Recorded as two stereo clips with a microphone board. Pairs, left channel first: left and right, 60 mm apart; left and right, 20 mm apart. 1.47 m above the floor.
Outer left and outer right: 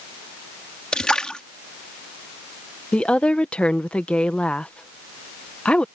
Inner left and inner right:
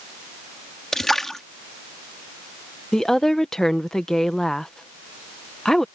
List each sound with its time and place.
0.9 s a splash: 15° left (ahead or behind)
2.9 s a woman speaking: 20° left (ahead or behind)